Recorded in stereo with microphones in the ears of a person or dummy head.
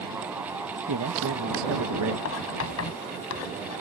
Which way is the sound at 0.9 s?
75° right (ahead or behind).